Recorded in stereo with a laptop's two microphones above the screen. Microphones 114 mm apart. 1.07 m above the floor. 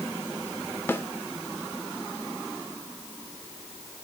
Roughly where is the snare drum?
Centre.